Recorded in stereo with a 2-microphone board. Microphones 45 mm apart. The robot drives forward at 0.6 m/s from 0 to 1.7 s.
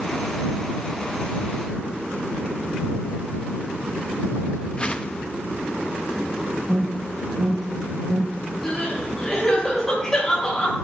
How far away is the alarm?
About 4.5 m.